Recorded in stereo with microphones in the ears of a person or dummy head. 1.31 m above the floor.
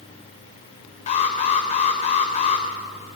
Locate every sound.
1.1 s an alarm: 40° left (ahead or behind), 3 m